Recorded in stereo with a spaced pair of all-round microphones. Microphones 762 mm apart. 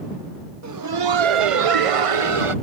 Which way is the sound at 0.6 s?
25° right (ahead or behind).